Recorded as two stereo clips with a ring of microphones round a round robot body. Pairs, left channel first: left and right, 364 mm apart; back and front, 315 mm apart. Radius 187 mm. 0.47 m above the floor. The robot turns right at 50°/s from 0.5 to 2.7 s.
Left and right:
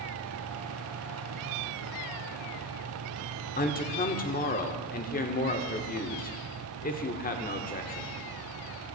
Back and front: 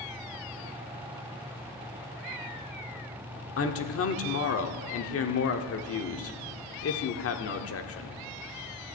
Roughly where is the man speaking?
Behind left.